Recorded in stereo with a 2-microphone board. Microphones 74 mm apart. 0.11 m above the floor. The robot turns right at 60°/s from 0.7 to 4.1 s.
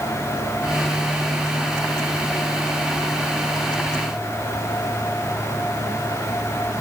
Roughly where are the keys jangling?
No keys jangling in this recording.